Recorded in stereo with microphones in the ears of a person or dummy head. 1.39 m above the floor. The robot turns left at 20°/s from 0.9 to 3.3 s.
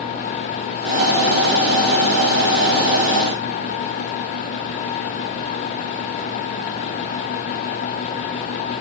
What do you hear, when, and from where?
Only background noise.